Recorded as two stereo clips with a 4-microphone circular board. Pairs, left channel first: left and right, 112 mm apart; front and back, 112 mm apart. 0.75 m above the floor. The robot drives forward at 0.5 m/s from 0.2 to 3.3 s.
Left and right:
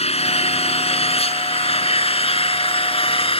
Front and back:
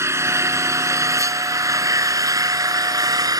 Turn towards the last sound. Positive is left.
turn(degrees=125)